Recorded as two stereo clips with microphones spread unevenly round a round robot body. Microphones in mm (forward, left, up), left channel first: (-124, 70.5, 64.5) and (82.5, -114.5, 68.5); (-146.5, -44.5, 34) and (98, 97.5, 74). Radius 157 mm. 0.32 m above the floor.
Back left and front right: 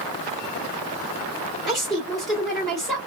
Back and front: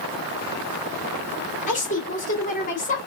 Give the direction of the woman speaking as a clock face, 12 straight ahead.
4 o'clock.